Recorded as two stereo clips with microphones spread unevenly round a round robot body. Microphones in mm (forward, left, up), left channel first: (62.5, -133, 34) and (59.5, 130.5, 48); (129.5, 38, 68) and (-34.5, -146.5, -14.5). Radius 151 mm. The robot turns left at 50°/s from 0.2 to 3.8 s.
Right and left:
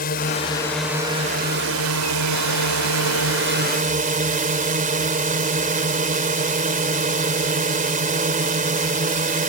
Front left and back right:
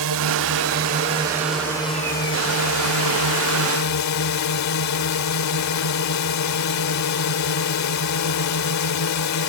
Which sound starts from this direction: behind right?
A drone, at 0.0 s.